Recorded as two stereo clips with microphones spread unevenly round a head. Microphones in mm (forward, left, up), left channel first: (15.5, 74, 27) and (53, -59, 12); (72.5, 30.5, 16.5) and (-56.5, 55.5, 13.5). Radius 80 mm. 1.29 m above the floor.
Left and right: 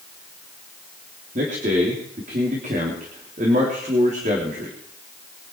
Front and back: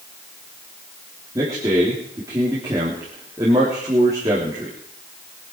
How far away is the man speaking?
About 3.5 m.